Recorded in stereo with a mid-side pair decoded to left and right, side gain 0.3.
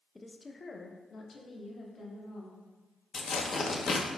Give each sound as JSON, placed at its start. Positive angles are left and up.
{"t": 0.1, "sound": "a woman speaking", "azimuth_deg": 20, "distance_m": 0.5}
{"t": 3.1, "sound": "tearing paper", "azimuth_deg": 60, "distance_m": 0.6}